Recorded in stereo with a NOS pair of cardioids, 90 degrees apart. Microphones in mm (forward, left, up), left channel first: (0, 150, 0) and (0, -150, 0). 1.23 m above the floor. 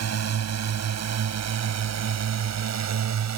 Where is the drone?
60° right; by 3.4 s 65° right.